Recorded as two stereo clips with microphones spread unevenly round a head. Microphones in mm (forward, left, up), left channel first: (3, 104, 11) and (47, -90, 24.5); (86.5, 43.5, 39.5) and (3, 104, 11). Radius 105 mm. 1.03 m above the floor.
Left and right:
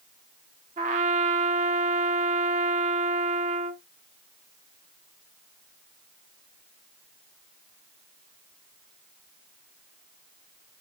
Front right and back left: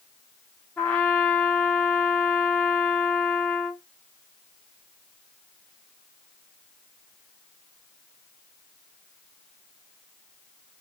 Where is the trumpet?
80° right, 0.6 m.